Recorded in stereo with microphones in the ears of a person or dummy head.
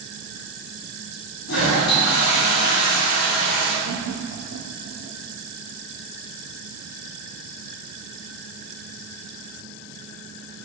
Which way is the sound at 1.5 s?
70° left (ahead or behind).